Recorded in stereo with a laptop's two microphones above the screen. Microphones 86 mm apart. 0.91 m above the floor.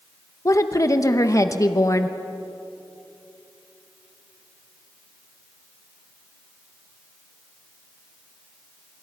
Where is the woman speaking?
40° left (ahead or behind), 0.8 m.